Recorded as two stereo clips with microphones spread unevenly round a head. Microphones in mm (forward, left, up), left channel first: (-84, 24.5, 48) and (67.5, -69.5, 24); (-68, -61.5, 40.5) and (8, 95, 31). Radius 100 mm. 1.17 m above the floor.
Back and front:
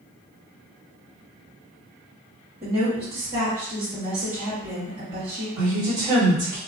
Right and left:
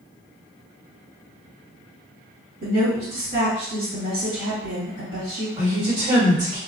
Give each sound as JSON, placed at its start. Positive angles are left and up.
{"t": 2.6, "sound": "a woman speaking", "azimuth_deg": 35, "distance_m": 1.7}
{"t": 5.6, "sound": "a woman speaking", "azimuth_deg": 15, "distance_m": 1.8}